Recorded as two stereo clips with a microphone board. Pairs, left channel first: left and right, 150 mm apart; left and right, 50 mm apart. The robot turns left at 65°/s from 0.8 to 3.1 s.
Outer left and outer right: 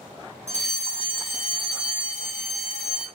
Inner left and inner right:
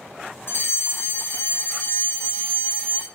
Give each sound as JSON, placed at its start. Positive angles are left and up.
{"t": 0.5, "sound": "a fire alarm", "azimuth_deg": 90, "distance_m": 1.6}